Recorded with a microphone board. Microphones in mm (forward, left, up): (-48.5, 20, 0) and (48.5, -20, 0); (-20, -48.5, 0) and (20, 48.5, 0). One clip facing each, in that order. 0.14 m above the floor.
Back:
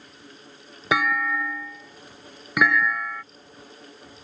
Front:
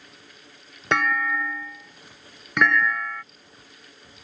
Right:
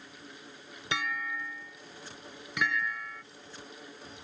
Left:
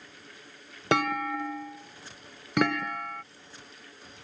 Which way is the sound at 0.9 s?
75° left.